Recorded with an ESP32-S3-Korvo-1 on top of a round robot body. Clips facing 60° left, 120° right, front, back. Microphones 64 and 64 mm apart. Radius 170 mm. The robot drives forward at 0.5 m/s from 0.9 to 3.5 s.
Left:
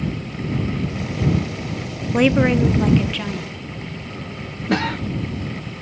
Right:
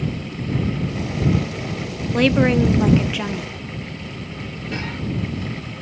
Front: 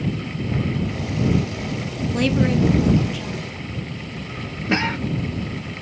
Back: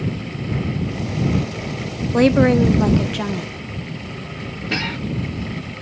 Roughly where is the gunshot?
No gunshot in this recording.